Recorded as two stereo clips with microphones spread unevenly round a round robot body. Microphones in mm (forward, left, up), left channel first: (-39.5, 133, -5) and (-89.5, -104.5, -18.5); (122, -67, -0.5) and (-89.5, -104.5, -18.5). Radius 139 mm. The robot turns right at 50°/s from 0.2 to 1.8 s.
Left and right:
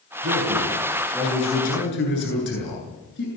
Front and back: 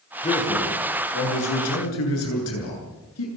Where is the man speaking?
55° right, 9 m; by 3.3 s 25° left, 9 m.